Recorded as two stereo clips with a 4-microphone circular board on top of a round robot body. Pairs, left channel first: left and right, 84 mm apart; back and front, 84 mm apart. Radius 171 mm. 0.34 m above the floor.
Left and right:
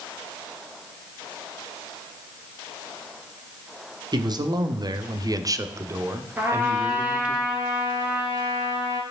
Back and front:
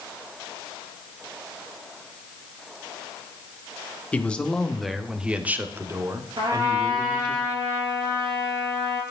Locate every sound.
4.1 s a man speaking: 110° right, 1.3 m; by 7.4 s 15° right, 1.5 m
6.4 s a trumpet: 20° right, 3 m